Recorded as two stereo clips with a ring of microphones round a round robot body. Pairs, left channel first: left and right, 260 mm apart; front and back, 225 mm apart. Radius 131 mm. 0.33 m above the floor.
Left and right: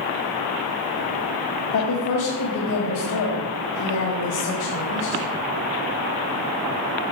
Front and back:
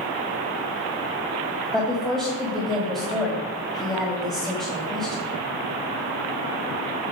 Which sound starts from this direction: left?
A woman speaking, at 1.7 s.